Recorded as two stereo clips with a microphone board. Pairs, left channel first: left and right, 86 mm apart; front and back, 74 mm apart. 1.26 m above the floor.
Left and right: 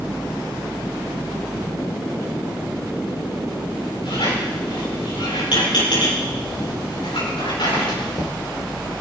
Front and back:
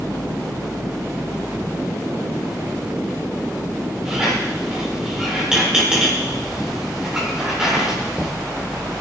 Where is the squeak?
100° left, 7.5 m.